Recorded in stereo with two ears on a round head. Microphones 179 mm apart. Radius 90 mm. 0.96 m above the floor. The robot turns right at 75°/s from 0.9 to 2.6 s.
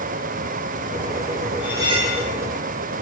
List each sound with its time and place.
1.6 s cutlery clinking: 175° right, 8.5 m; by 2.2 s 130° right, 8.5 m